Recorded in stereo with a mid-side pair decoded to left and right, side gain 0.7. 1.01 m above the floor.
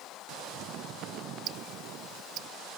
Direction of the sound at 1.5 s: 55° right.